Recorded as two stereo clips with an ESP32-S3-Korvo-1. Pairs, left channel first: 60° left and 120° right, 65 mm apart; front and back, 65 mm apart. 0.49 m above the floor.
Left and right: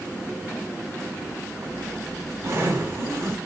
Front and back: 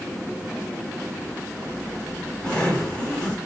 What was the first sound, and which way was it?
A zipper, 75° right.